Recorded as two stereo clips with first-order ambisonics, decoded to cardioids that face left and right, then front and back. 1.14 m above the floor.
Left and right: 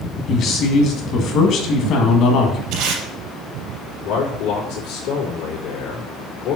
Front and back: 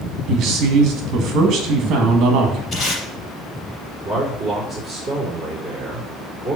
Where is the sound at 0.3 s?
135° left, 1.8 m.